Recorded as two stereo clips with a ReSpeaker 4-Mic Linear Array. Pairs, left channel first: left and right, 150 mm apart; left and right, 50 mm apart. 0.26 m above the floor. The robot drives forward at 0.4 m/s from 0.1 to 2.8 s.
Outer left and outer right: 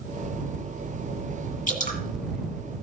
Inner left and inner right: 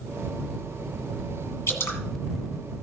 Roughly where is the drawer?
I don't hear a drawer.